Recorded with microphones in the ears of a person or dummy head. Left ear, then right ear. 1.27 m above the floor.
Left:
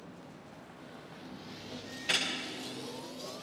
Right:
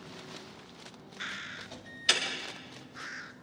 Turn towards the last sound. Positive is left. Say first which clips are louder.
# right 3 dB
turn(degrees=-55)  # may be behind; listen again after turning